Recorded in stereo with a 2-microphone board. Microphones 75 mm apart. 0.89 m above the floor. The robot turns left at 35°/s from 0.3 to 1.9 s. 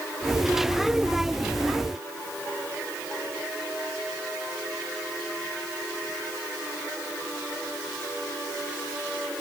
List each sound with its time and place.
Only background noise.